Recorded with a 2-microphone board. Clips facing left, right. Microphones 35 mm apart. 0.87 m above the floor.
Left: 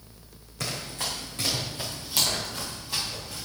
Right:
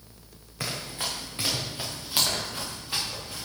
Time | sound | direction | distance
0.6 | running footsteps | 20° right (ahead or behind) | 3.5 m